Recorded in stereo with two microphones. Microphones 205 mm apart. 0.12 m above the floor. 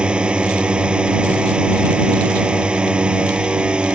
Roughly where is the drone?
Centre.